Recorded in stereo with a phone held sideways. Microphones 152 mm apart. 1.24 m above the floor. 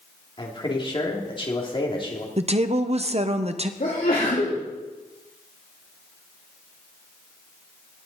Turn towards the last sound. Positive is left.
turn(degrees=65)  # may be behind; listen again after turning